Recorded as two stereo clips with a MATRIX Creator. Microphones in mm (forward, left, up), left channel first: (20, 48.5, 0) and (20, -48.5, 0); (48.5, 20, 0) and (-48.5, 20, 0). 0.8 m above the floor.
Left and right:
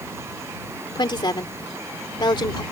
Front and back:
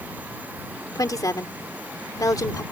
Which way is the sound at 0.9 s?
50° left.